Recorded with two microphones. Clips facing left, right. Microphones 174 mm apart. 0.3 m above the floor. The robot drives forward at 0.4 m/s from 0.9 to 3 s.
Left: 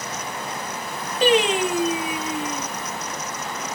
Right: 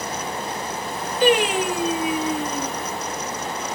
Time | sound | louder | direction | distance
1.2 | singing | even | 30° left (ahead or behind) | 1.2 m